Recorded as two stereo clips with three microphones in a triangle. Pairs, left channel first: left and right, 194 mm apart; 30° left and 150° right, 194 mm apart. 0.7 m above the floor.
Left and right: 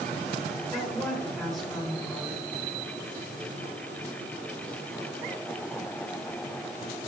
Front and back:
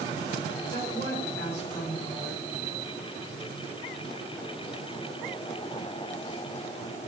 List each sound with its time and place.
0.7 s a woman speaking: straight ahead, 9 m